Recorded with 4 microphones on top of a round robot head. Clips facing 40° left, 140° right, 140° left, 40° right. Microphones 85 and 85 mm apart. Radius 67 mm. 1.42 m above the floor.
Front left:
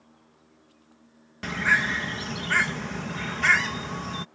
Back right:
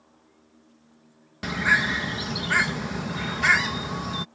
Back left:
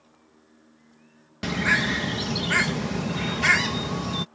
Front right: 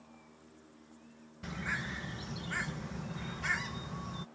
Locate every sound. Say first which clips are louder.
1.4 s a bird: back right 1 dB, back left 15 dB; 145° left